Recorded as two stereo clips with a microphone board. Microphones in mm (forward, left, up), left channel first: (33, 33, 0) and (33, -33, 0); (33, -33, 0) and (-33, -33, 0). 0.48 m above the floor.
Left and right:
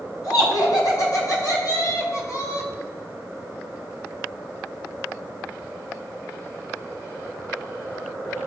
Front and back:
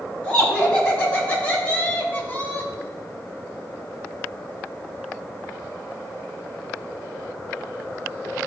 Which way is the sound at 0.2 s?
75° left.